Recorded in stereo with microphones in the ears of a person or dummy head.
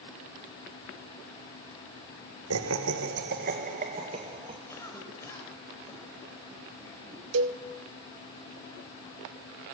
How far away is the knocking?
I don't hear knocking.